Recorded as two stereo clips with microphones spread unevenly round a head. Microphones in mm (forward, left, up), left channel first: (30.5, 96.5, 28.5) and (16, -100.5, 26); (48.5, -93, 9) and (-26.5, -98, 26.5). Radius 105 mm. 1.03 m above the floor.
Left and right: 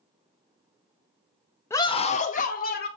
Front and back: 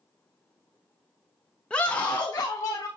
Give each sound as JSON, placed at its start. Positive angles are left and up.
{"t": 1.7, "sound": "a scream", "azimuth_deg": 20, "distance_m": 0.8}